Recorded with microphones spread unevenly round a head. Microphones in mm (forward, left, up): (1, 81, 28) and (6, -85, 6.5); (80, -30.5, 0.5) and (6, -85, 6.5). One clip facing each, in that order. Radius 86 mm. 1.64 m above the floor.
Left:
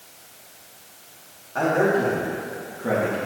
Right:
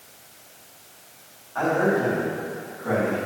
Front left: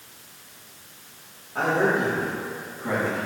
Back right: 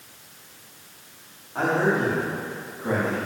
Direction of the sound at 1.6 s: 140° left.